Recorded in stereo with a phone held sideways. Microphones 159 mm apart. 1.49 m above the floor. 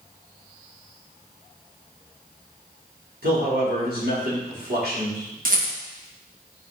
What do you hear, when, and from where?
3.2 s a man speaking: 75° right (ahead or behind), 3.5 m
5.5 s a rattle: 60° right (ahead or behind), 1.7 m